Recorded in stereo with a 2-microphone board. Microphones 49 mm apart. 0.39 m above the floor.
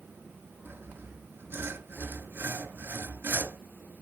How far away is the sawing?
About 1.7 m.